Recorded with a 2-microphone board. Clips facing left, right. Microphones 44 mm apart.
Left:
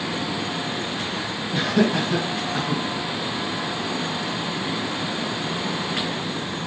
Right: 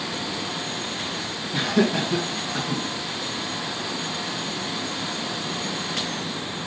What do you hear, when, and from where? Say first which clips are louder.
1.5 s laughter: left 1 dB; 5° left (ahead or behind), 2.5 m; by 2.8 s 10° left (ahead or behind), 1.7 m